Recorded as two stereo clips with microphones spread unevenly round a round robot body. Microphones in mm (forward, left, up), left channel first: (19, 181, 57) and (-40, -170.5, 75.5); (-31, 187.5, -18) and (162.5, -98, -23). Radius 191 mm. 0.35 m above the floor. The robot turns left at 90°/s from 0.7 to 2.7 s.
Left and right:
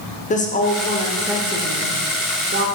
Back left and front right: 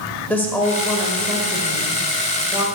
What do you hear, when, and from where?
0.3 s a woman speaking: 45° left, 1.1 m; by 2.7 s 135° right, 1.1 m